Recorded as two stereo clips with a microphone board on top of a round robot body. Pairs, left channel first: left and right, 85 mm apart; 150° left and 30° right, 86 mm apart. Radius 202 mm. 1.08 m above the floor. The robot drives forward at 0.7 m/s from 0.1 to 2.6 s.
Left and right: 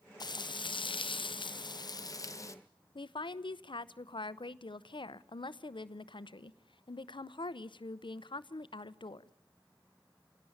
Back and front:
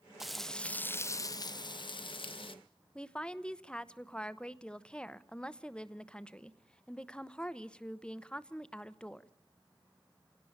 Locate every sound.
0.2 s frying: 55° left, 1.0 m; by 2.5 s 145° left, 1.4 m
3.0 s a woman speaking: 70° left, 1.0 m